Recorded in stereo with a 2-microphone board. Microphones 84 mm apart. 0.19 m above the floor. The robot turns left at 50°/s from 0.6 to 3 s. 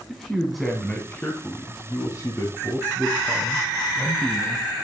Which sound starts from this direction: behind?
A man speaking, at 0.1 s.